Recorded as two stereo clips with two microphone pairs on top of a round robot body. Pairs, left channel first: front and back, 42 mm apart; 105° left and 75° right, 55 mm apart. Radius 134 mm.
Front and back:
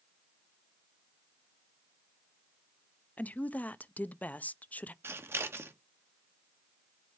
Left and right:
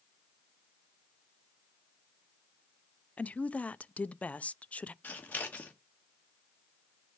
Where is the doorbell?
No doorbell in this recording.